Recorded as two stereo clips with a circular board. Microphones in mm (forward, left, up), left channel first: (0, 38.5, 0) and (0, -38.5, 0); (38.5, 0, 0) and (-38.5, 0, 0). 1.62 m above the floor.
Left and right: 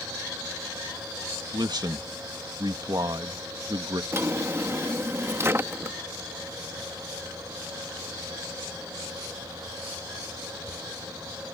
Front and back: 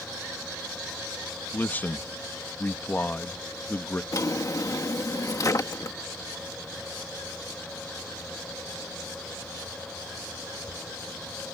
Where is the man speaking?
65° right.